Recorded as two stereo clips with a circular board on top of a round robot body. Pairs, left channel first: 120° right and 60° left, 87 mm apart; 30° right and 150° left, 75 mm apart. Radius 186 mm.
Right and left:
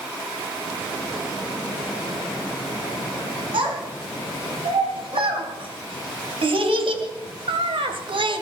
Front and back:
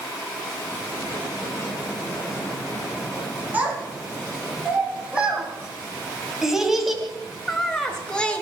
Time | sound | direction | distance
3.5 | a child speaking | 80° left | 3.5 m